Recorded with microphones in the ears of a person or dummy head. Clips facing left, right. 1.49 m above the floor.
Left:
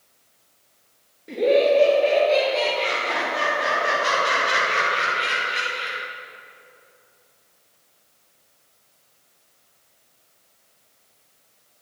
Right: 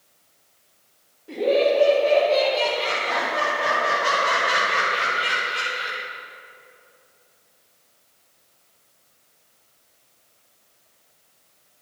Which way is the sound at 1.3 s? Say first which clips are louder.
Left 2 dB; 35° left (ahead or behind).